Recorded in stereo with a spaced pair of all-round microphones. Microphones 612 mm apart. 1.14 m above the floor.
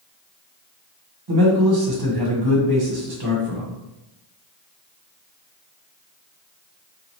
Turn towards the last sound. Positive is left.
turn(degrees=-40)  # may be behind; listen again after turning